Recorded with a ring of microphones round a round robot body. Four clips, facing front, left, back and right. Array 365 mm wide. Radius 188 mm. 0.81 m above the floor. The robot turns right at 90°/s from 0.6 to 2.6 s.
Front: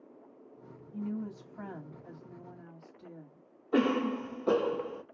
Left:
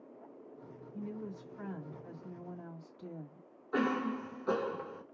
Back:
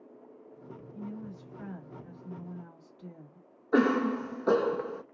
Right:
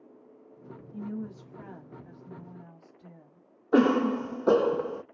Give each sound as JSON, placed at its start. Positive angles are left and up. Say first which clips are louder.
{"t": 0.9, "sound": "a woman speaking", "louder": "right 5 dB, front 5 dB", "azimuth_deg": -65, "distance_m": 2.5}
{"t": 3.7, "sound": "a cough", "louder": "right 10 dB, back 3 dB", "azimuth_deg": -100, "distance_m": 0.7}